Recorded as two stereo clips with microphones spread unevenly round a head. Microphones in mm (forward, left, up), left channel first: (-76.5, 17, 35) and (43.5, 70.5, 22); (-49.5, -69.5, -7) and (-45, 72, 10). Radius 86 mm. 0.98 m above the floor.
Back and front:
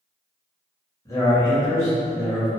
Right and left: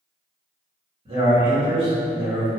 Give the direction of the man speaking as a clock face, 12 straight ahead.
7 o'clock.